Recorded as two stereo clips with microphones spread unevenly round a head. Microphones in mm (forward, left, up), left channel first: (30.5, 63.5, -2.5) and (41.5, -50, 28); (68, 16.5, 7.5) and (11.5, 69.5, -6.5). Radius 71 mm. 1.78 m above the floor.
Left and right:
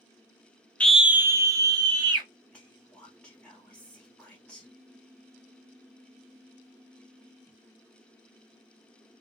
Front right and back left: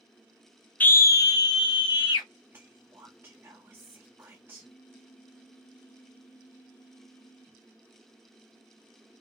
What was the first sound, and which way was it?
A scream, 5° left.